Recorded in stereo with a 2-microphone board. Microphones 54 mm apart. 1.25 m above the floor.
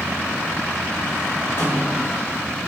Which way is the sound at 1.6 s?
50° left (ahead or behind).